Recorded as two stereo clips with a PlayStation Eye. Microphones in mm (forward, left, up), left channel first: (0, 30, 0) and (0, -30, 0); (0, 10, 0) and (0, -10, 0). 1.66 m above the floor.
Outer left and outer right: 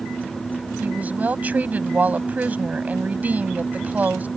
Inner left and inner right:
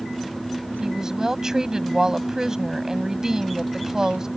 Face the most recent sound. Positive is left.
turn(degrees=-25)  # may be behind; listen again after turning